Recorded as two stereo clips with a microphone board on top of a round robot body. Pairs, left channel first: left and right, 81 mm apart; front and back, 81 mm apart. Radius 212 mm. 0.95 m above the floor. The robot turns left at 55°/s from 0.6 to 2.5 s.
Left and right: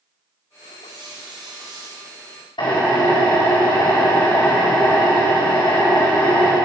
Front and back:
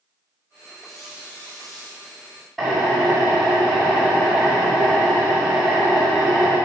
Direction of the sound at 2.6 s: 85° left.